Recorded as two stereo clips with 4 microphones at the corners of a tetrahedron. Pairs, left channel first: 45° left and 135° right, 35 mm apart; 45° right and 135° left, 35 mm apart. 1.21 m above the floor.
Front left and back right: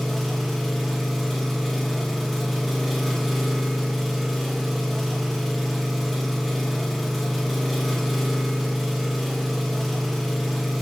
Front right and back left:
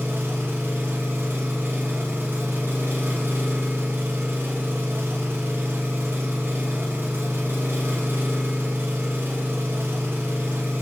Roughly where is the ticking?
I don't hear ticking.